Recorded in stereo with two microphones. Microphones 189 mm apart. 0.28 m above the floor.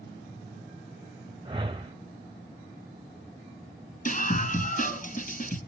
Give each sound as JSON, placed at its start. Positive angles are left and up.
{"t": 1.4, "sound": "a whoosh", "side_deg": -25, "distance_m": 1.3}
{"t": 4.0, "sound": "a scream", "side_deg": 45, "distance_m": 3.0}